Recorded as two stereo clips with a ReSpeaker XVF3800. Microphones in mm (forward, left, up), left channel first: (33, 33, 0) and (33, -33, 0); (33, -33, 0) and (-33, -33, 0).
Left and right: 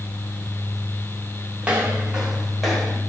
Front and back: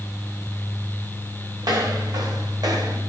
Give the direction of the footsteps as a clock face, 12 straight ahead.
5 o'clock.